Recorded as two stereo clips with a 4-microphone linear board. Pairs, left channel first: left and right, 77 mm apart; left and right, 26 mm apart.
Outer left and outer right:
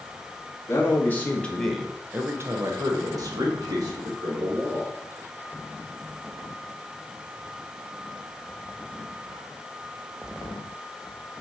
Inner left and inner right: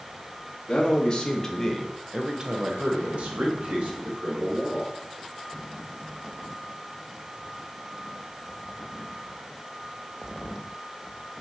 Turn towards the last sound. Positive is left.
turn(degrees=-55)  # may be behind; listen again after turning